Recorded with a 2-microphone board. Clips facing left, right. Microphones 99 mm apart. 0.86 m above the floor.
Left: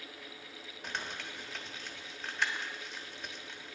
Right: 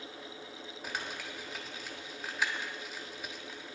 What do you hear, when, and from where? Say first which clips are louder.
0.8 s crumpling: right 1 dB; 5° right (ahead or behind), 1.3 m